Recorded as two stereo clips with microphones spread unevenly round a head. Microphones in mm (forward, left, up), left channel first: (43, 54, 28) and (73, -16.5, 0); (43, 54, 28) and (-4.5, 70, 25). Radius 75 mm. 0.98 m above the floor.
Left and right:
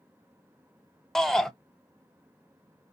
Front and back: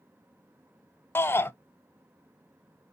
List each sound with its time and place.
1.1 s a shout: 15° left, 0.9 m